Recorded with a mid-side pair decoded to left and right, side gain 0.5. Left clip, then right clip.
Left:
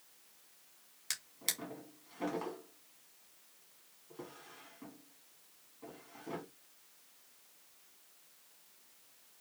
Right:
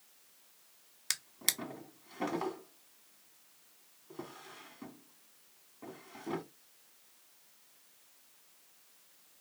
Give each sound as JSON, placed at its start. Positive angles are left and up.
{"t": 1.1, "sound": "a drawer", "azimuth_deg": -45, "distance_m": 1.2}